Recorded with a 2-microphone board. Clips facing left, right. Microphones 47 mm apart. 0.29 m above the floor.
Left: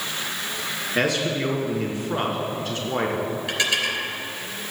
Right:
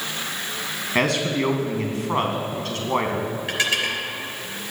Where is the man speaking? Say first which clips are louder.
Right 2 dB; 60° right (ahead or behind), 2.5 m.